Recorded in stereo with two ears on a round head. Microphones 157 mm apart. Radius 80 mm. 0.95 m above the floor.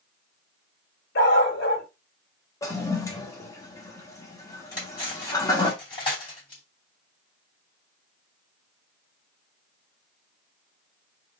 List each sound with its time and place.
1.1 s a dog barking: 65° left (ahead or behind), 1.5 m
2.6 s a toilet flushing: 15° left (ahead or behind), 0.9 m
4.7 s cutlery clinking: 30° left (ahead or behind), 2.5 m